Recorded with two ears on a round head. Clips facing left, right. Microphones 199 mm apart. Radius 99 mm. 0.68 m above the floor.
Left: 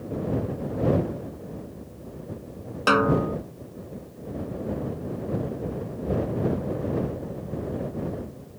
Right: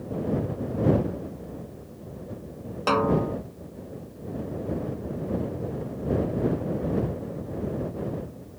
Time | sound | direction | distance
2.9 | a snare drum | 15° left (ahead or behind) | ?